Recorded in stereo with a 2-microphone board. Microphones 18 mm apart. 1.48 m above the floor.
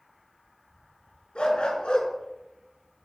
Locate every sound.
1.4 s a dog barking: 70° left (ahead or behind), 4.5 m; by 3.1 s 35° left (ahead or behind), 3.5 m